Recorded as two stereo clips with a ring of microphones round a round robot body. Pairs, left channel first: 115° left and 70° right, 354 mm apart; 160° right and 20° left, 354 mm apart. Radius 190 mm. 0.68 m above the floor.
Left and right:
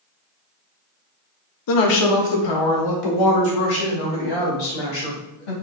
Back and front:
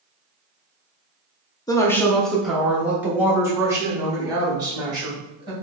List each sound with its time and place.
1.7 s a woman speaking: 125° left, 0.8 m; by 5.5 s 100° left, 3 m